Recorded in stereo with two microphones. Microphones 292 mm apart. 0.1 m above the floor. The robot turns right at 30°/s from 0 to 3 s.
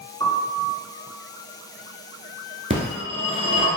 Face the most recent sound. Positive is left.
turn(degrees=-20)  # may be behind; listen again after turning